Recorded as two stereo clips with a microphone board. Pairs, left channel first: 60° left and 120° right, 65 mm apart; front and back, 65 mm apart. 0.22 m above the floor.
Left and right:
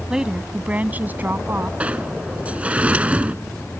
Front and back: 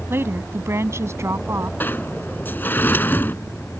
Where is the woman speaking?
165° left; by 1.7 s 160° right.